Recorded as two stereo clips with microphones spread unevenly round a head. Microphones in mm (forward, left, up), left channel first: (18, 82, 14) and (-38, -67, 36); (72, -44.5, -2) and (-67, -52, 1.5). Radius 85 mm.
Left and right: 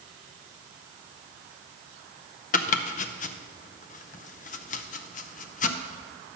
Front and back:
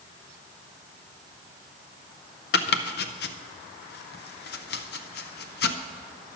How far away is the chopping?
About 0.6 m.